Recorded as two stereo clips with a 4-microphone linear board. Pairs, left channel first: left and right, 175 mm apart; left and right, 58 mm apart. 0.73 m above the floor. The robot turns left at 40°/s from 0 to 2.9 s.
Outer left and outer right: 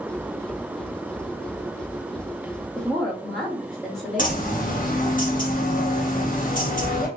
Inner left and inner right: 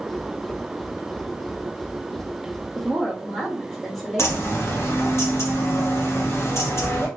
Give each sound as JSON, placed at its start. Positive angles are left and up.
{"t": 2.8, "sound": "a woman speaking", "side_deg": 10, "distance_m": 1.9}
{"t": 4.2, "sound": "a bird", "side_deg": 50, "distance_m": 1.2}